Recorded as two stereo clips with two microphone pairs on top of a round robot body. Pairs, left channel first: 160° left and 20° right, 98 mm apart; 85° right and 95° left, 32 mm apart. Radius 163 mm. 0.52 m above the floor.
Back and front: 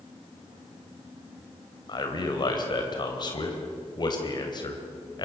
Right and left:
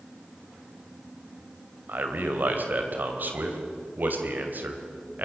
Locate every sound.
1.9 s a man speaking: 115° left, 3 m